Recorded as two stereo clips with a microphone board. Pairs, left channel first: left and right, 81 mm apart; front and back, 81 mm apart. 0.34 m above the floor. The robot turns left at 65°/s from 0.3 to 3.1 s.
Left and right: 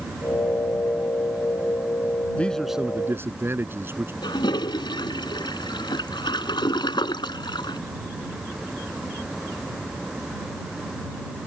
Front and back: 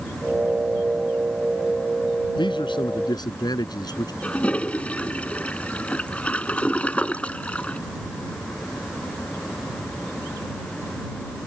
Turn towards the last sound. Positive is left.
turn(degrees=75)